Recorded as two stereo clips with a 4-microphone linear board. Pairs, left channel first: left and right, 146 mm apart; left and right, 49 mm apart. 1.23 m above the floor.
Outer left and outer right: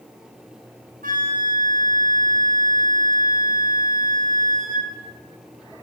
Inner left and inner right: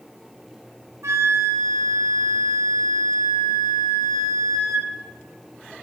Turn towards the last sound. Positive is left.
turn(degrees=-70)  # may be behind; listen again after turning